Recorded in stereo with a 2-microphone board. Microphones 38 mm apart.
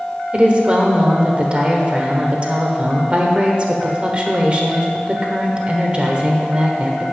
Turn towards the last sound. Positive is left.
turn(degrees=-30)  # may be behind; listen again after turning